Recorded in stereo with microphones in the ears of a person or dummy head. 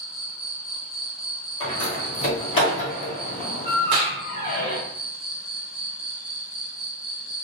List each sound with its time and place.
0.0 s an insect: centre (ahead or behind), 1.1 m
1.6 s a door slam: 30° left (ahead or behind), 1.5 m
3.9 s a clap: 35° right (ahead or behind), 0.6 m